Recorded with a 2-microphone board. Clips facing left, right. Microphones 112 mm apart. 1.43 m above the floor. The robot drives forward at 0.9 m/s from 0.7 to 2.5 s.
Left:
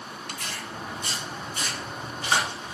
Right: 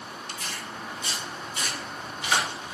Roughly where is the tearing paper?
Left.